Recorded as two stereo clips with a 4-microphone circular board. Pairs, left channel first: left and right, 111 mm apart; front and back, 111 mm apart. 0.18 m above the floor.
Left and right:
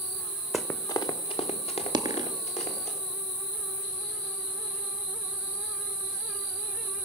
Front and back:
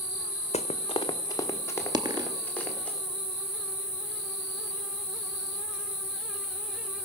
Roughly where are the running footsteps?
Ahead.